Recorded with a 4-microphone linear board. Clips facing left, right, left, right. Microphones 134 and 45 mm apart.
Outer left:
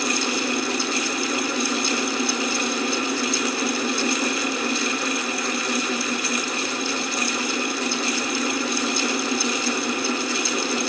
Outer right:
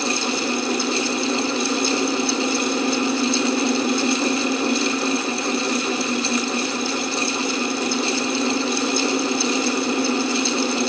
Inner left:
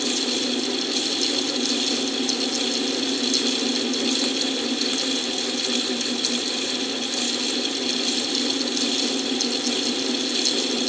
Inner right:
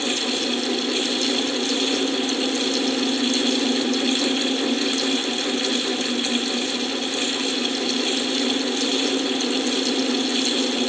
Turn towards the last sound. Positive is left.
No sound to turn to.